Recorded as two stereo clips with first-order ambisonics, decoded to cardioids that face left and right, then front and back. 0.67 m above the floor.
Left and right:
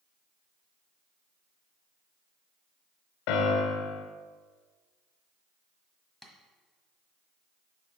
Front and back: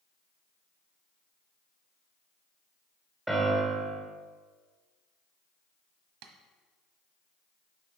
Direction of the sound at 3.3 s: 100° left.